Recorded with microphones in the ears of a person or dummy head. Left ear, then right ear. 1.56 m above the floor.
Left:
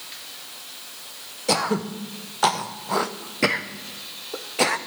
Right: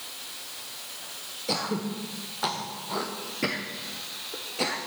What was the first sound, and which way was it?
Throat clearing, 40° left (ahead or behind).